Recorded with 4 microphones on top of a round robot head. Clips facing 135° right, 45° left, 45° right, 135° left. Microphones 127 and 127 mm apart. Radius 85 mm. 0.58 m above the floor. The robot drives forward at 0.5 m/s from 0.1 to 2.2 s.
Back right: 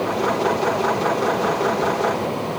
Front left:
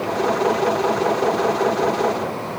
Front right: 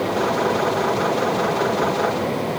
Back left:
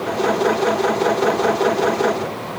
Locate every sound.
Only background noise.